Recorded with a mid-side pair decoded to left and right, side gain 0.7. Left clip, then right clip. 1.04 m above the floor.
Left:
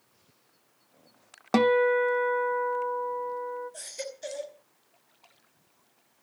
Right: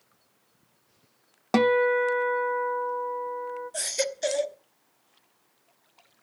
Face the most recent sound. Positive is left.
turn(degrees=-45)